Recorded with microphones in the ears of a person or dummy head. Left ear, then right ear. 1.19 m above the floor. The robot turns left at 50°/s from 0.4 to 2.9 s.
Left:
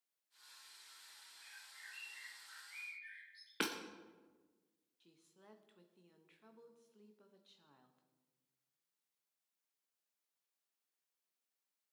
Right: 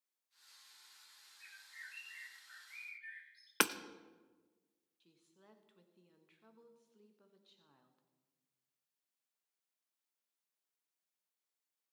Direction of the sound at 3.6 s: 35° right (ahead or behind).